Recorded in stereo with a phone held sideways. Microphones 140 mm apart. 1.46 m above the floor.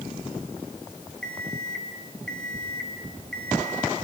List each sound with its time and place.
1.2 s an alarm clock: 5° left (ahead or behind), 2.5 m